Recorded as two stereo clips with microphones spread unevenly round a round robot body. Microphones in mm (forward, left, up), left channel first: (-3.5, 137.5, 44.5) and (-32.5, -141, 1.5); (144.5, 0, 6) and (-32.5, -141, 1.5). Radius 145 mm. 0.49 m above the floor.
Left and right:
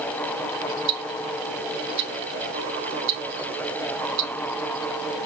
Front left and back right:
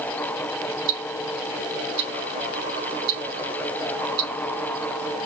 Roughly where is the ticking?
Behind right.